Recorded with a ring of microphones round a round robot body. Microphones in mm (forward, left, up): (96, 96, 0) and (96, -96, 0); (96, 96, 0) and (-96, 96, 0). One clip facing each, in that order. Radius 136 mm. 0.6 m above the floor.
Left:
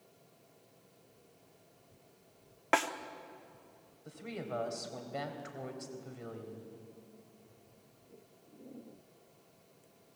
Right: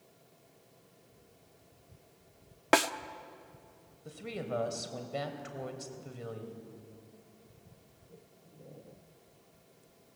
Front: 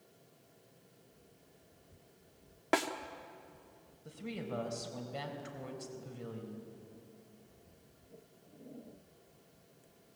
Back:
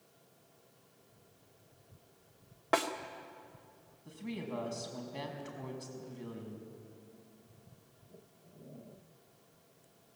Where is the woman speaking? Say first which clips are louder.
Right 3 dB, back 1 dB; 35° right, 3.5 m.